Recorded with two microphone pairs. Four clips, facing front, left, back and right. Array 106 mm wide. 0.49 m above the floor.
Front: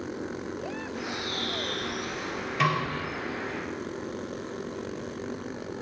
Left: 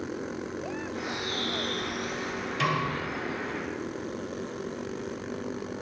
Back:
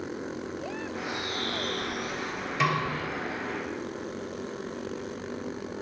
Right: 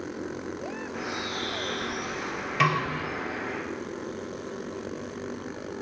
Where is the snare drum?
90° right, 1.2 m.